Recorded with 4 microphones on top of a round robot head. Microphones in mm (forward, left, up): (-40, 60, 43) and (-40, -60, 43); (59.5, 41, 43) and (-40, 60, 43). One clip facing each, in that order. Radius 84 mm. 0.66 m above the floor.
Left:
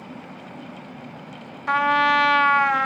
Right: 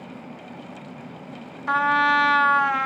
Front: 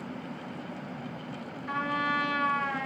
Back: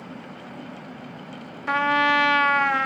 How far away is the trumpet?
About 0.9 m.